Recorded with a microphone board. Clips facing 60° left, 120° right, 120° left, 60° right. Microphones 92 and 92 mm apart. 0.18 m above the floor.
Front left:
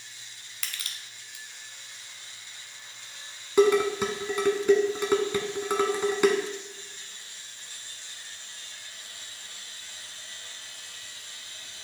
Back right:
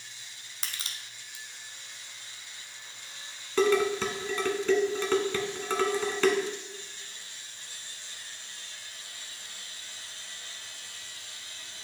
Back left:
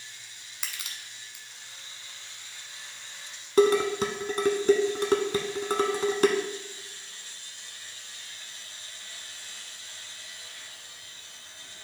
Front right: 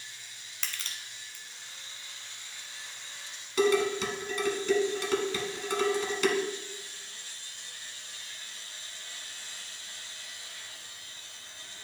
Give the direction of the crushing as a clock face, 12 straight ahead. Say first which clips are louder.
Even, even; 6 o'clock.